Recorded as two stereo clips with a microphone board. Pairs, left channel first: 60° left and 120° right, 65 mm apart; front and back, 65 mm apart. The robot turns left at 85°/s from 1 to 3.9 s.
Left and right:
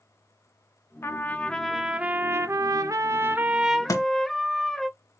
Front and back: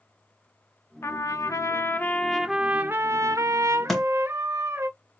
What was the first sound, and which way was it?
A trumpet, 30° left.